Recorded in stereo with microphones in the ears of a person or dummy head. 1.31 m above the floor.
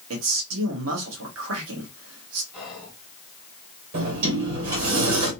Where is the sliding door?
70° right (ahead or behind), 1.9 m.